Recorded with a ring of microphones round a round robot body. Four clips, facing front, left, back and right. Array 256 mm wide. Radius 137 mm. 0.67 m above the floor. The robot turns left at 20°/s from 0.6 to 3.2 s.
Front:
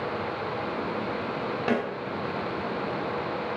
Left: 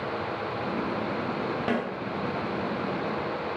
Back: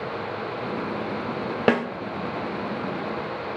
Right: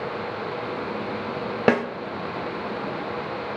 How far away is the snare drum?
About 1.2 m.